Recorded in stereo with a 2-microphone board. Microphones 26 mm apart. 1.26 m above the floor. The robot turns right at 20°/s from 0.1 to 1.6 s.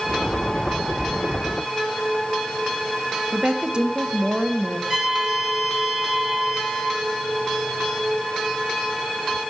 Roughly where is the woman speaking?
Right.